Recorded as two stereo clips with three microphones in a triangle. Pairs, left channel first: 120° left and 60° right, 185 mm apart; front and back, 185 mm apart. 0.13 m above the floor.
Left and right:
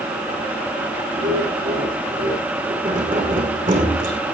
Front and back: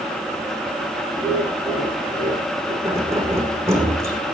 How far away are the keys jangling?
About 5.5 m.